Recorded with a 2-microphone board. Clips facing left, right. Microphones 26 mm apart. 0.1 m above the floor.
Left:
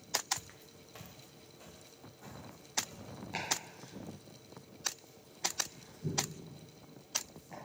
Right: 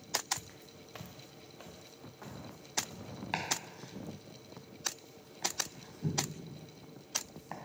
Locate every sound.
0.4 s footsteps: 25° left (ahead or behind), 0.8 m; by 3.1 s 65° right (ahead or behind), 3.5 m
3.3 s chopping: 75° right (ahead or behind), 2.5 m